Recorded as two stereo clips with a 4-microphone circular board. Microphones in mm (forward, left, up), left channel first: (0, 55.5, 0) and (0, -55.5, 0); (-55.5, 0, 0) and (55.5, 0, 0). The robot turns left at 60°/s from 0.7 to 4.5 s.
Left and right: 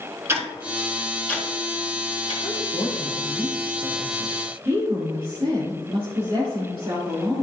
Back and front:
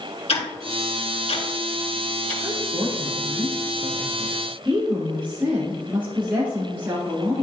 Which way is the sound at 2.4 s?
55° left.